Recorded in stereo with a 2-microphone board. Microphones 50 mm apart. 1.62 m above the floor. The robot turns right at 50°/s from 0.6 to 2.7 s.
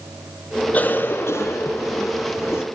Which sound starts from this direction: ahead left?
A cough, at 0.7 s.